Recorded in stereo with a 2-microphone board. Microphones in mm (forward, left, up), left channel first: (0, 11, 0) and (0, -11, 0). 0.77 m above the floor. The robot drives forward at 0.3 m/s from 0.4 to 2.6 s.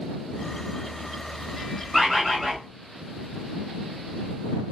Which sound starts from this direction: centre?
A bird, at 1.9 s.